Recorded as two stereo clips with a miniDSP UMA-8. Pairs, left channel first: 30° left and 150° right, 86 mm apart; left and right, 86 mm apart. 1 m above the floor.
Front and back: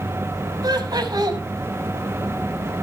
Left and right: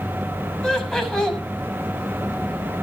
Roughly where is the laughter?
Behind.